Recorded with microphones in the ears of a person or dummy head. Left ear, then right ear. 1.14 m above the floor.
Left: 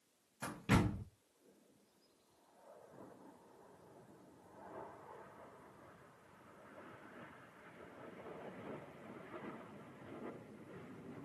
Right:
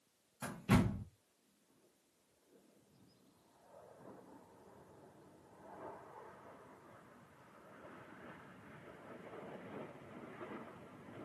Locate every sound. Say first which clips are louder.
0.4 s a door slam: even; centre (ahead or behind), 0.7 m